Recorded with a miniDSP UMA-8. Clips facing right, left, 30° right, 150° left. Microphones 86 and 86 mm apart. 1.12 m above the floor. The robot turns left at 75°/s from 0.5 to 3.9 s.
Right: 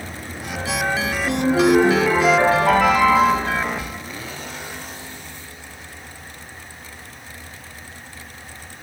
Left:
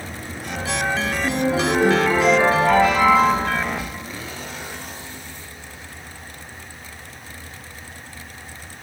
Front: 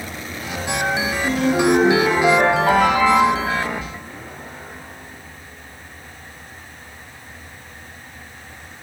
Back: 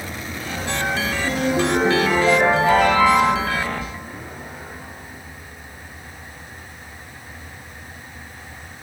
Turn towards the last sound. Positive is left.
turn(degrees=-160)